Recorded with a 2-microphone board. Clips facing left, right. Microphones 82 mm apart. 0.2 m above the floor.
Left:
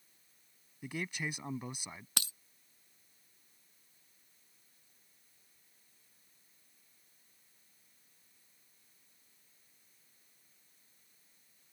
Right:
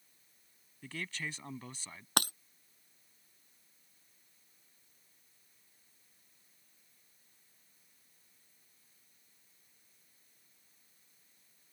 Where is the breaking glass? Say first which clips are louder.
Right 12 dB; 60° right (ahead or behind).